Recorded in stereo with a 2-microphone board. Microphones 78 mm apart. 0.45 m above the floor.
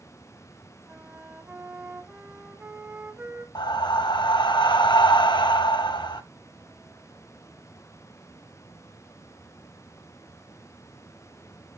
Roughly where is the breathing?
Left.